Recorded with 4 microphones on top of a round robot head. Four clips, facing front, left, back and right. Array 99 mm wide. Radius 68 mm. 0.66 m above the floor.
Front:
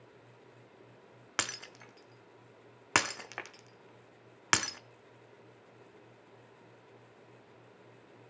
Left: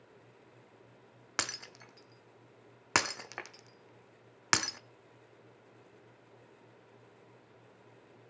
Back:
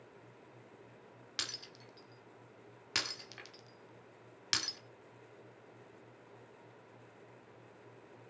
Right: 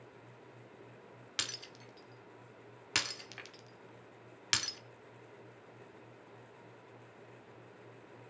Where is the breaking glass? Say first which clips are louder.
Left 7 dB, front 10 dB; 40° left, 0.8 m.